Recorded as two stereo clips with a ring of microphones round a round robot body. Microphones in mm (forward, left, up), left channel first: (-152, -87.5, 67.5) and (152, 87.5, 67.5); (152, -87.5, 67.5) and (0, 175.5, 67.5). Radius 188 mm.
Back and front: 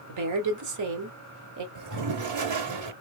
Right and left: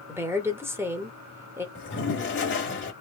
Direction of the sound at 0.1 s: 40° left.